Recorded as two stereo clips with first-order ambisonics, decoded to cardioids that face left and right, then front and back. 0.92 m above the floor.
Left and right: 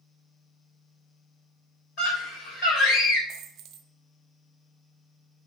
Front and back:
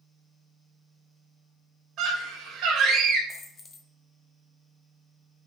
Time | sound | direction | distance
2.0 | a scream | 125° left | 3.5 m
3.3 | a dropped coin | 60° right | 0.8 m